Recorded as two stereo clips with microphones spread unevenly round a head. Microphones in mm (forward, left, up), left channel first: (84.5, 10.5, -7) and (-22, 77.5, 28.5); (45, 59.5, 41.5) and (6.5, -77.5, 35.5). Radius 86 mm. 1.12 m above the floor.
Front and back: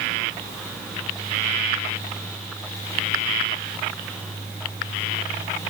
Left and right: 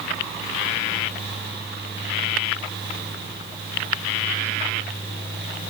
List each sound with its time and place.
Only background noise.